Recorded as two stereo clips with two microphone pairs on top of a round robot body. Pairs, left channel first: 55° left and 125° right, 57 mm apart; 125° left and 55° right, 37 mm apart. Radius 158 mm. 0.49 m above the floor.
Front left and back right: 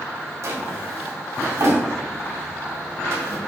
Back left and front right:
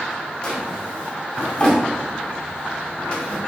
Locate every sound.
0.4 s a drawer: 165° right, 0.8 m